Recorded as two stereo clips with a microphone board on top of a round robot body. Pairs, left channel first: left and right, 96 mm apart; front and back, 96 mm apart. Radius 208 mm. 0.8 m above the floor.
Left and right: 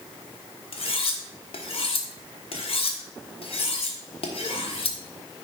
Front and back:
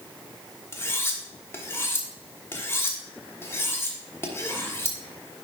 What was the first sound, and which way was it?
Cutlery clinking, 70° left.